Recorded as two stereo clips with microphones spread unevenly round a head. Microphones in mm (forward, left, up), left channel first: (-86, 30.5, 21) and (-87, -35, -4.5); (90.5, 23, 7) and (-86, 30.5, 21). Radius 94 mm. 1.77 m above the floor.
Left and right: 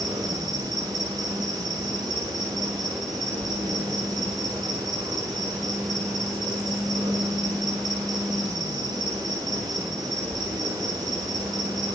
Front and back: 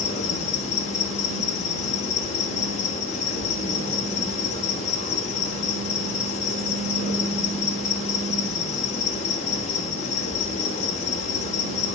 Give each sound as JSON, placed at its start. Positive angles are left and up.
{"t": 0.0, "sound": "an insect", "azimuth_deg": -45, "distance_m": 1.4}